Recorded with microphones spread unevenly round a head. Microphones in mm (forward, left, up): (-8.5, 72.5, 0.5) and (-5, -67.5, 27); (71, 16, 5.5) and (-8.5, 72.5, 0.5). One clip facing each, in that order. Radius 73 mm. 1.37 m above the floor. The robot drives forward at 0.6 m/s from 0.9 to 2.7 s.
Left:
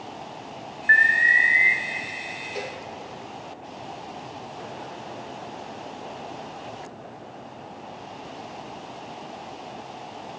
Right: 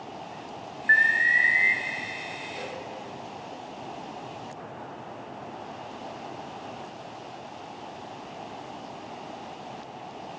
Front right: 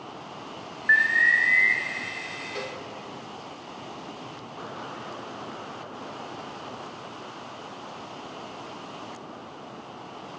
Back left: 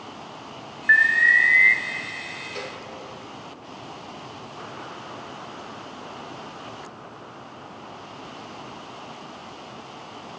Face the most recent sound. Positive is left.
turn(degrees=50)